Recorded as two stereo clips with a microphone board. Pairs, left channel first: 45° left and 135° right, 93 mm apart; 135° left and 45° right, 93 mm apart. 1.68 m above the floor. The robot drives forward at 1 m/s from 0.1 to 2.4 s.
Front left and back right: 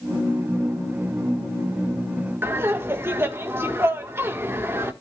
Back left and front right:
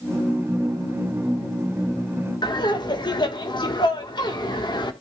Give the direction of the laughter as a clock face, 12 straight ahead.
7 o'clock.